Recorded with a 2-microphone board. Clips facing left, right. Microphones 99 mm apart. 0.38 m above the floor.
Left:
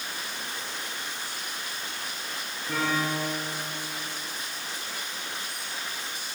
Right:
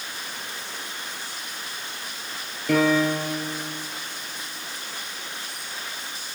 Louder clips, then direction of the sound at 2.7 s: Right 8 dB; 85° right.